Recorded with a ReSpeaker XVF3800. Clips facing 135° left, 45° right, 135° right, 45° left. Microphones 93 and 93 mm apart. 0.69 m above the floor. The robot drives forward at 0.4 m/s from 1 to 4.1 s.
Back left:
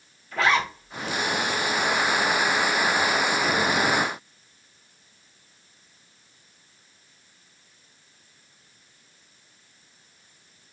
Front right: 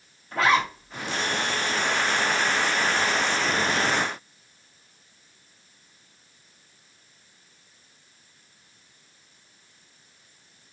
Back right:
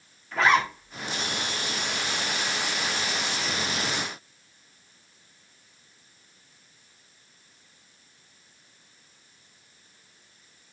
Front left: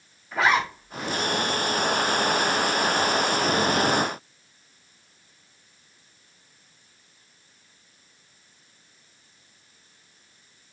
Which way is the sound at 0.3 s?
30° right.